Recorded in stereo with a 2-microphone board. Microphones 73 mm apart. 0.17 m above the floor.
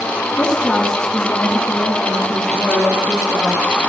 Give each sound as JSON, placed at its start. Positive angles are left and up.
{"t": 0.4, "sound": "a woman speaking", "side_deg": 15, "distance_m": 1.3}